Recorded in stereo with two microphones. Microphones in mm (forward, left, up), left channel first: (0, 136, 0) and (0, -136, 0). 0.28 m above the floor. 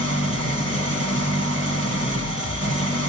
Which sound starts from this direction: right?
An engine running, at 0.0 s.